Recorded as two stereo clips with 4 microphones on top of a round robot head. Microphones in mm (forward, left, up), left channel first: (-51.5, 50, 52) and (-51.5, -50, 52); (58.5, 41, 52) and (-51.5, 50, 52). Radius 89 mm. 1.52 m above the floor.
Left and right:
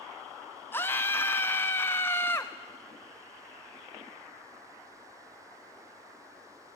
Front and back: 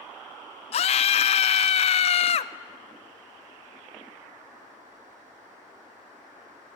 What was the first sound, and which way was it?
A scream, 15° left.